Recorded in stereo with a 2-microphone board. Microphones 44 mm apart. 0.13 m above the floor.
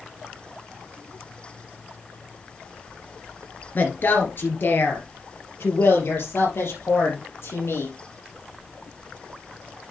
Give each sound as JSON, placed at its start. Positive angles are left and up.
{"t": 3.8, "sound": "a woman speaking", "side_deg": 45, "distance_m": 2.0}